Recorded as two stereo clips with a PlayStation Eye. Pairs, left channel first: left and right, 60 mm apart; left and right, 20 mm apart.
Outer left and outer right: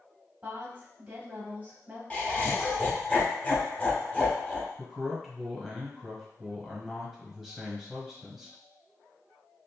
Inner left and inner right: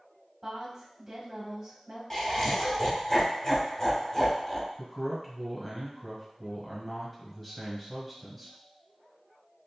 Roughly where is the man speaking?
Centre.